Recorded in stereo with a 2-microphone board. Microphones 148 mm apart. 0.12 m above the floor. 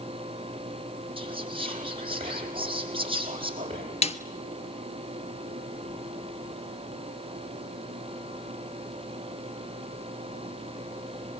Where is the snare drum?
45° left (ahead or behind), 1.1 m.